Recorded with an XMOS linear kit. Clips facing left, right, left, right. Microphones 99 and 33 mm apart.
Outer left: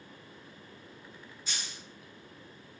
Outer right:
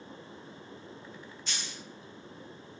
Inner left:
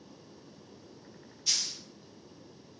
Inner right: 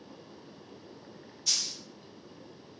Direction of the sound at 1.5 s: 5° left (ahead or behind).